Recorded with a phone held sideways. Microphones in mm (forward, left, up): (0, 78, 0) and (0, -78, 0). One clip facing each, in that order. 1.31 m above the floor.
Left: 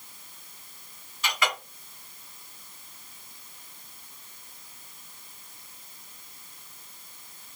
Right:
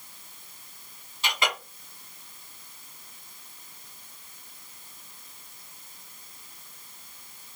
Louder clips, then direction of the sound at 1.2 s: Even; 25° right (ahead or behind).